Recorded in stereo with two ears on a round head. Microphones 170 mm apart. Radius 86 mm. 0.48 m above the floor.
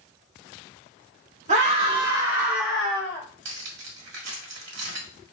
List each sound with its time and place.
1.5 s a scream: 40° right (ahead or behind), 1.4 m; by 3.2 s 15° left (ahead or behind), 1.5 m
3.5 s cutlery clinking: 65° right (ahead or behind), 1.4 m